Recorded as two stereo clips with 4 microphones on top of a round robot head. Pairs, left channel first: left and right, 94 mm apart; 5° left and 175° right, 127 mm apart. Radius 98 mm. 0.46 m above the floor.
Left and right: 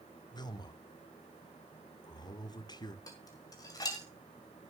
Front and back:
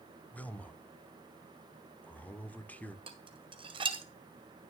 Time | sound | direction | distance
0.3 | a man speaking | 80° left | 1.2 m
3.1 | dishes clattering | 140° left | 1.6 m